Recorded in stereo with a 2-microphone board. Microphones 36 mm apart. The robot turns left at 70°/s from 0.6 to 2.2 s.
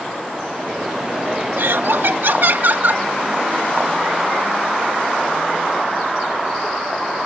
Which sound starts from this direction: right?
Laughter, at 1.6 s.